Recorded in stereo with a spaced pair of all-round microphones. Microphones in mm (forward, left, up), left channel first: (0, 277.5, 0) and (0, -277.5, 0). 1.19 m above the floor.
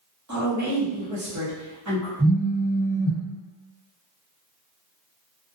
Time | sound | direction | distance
0.3 | a woman speaking | 30° right (ahead or behind) | 0.9 m
2.2 | a phone buzzing | centre (ahead or behind) | 1.4 m